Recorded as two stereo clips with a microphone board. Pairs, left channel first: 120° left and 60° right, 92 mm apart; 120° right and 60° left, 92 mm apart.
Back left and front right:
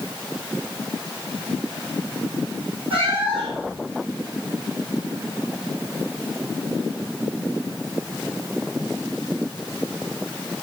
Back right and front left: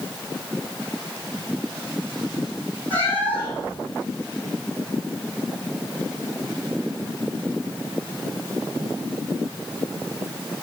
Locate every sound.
2.9 s a cat meowing: 50° right, 2 m